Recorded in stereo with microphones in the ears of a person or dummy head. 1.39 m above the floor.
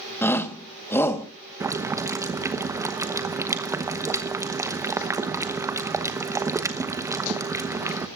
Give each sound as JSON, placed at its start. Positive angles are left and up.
{"t": 0.2, "sound": "a shout", "side_deg": 10, "distance_m": 1.3}
{"t": 1.6, "sound": "boiling", "side_deg": -15, "distance_m": 1.0}